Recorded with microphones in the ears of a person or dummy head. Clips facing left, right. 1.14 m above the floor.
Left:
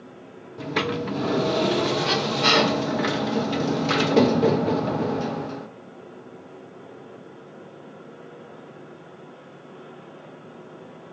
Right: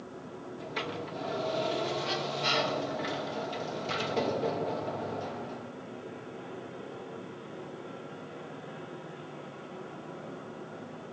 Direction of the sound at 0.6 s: 70° left (ahead or behind).